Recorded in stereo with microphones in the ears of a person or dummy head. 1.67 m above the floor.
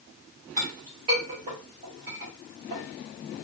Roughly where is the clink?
Right.